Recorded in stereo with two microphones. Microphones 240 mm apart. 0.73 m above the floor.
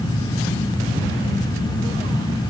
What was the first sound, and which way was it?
Only background noise.